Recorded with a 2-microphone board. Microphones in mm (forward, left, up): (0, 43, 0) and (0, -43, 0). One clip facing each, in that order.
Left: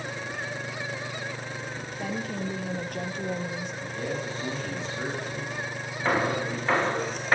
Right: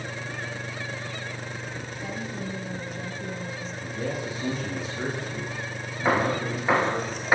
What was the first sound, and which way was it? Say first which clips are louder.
A woman speaking: left 3 dB; 65° left (ahead or behind).